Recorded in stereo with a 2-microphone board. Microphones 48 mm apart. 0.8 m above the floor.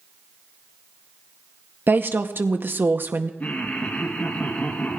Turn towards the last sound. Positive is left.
turn(degrees=35)  # may be behind; listen again after turning